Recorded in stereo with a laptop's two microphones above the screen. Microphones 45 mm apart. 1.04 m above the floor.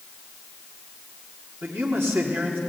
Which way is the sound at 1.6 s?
60° right (ahead or behind).